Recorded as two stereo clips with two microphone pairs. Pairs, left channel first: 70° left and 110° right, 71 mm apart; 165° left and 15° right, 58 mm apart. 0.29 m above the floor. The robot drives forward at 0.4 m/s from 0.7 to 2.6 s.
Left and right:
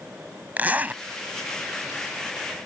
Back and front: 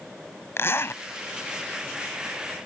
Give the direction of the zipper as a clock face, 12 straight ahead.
6 o'clock.